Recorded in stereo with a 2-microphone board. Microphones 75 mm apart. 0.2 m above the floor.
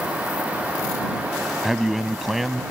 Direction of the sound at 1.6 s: Centre (ahead or behind).